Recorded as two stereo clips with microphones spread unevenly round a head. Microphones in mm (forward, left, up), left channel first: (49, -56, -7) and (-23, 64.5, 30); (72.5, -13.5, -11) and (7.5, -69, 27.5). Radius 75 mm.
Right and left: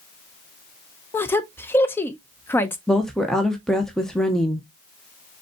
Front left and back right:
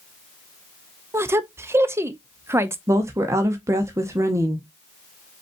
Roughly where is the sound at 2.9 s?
Ahead right.